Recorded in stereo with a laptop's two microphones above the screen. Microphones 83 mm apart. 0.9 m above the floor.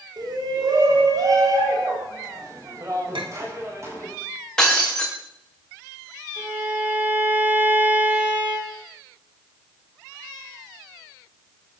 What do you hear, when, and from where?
0.2 s a shout: 60° right (ahead or behind), 4.5 m; by 4.1 s 35° right (ahead or behind), 6.5 m
3.1 s a clink: 85° right, 3 m
4.6 s breaking glass: 10° left (ahead or behind), 4.5 m
6.4 s a violin: 30° right (ahead or behind), 5 m